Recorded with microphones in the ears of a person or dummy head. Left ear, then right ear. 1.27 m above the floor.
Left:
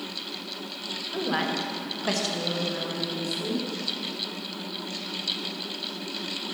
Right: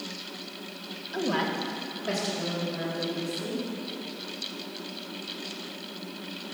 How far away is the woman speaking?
About 1.2 m.